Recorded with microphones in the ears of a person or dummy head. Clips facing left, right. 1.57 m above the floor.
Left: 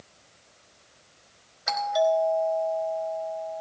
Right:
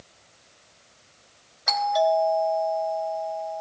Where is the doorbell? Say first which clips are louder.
Right 1 dB; 10° left (ahead or behind), 4 m.